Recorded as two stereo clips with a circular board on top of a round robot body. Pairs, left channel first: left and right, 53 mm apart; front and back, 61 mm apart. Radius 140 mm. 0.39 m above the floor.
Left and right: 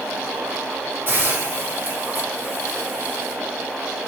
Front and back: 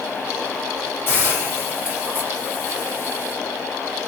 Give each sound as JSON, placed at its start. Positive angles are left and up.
{"t": 1.1, "sound": "a hiss", "azimuth_deg": -125, "distance_m": 2.5}